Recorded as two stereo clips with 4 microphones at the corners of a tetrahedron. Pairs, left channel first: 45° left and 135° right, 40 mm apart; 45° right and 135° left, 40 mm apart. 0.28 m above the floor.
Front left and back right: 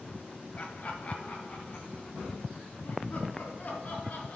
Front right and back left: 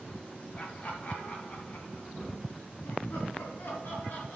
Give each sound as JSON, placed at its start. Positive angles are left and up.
{"t": 0.6, "sound": "laughter", "azimuth_deg": 0, "distance_m": 1.6}